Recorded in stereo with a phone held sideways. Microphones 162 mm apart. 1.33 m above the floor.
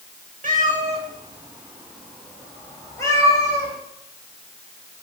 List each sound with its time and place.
0.4 s a cat meowing: 55° right (ahead or behind), 1.5 m; by 3.7 s 25° left (ahead or behind), 3.5 m